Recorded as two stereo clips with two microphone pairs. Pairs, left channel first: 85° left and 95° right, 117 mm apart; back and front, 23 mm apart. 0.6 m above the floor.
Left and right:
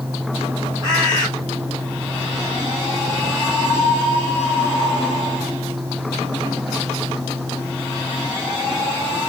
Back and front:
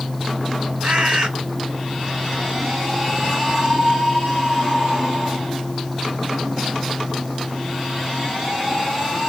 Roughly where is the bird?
Ahead right.